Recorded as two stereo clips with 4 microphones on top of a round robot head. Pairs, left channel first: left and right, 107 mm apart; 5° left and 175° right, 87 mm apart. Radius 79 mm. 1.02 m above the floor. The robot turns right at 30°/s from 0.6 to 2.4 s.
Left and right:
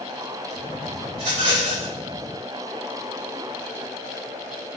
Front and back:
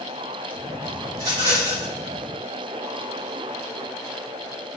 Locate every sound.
1.1 s a rattle: 135° right, 4 m; by 1.9 s 115° right, 4 m